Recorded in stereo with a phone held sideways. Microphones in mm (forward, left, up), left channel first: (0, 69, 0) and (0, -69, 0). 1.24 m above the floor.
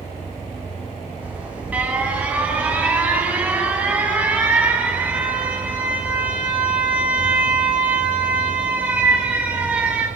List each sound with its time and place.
1.2 s an alarm: 10° right (ahead or behind), 10 m